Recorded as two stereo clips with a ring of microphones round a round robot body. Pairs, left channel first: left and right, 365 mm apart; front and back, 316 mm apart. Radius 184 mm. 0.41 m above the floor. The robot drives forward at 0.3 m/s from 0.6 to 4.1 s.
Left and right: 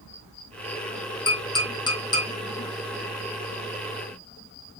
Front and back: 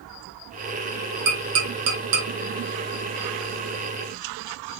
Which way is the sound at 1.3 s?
170° left.